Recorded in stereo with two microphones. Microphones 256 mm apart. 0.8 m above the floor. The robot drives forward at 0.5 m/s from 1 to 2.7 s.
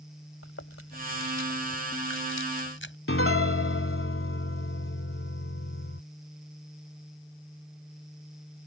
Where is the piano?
55° left (ahead or behind).